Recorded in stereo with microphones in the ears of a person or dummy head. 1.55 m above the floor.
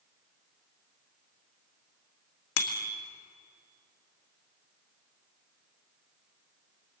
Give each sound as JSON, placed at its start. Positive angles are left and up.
{"t": 2.6, "sound": "a bicycle bell", "side_deg": 75, "distance_m": 2.5}